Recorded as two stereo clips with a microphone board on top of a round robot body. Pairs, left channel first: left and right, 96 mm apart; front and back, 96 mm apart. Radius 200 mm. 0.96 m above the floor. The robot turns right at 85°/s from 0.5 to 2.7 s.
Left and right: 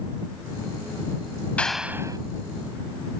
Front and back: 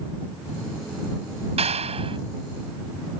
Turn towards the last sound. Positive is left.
turn(degrees=-95)